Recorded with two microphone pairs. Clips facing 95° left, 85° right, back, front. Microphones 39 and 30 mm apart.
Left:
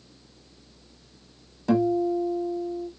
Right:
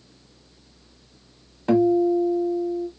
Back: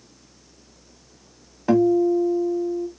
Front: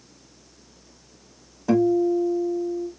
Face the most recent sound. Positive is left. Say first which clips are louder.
# right 4 dB, back 2 dB
turn(degrees=-140)